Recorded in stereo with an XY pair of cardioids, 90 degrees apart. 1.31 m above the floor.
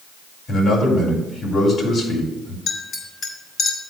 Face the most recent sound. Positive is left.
turn(degrees=60)